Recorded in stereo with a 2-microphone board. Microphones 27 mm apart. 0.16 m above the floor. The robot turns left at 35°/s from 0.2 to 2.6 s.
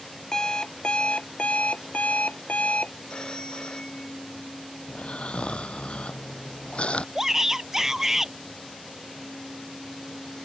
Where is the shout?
20° right (ahead or behind).